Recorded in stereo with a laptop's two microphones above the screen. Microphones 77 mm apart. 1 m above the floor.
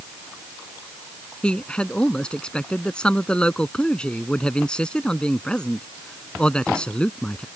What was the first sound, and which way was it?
A man speaking, 10° left (ahead or behind).